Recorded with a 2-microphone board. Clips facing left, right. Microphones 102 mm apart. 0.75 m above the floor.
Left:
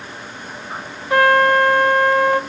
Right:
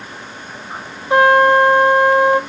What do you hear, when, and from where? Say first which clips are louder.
1.1 s a trumpet: right 3 dB; 20° right (ahead or behind), 0.5 m